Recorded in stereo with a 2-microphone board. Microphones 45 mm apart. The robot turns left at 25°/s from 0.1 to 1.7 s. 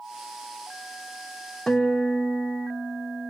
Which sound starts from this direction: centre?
A guitar, at 1.7 s.